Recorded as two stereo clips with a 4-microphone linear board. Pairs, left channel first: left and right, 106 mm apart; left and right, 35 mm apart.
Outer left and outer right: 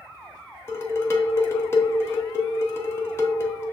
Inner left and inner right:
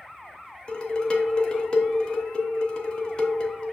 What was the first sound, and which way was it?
Dishes clattering, 25° left (ahead or behind).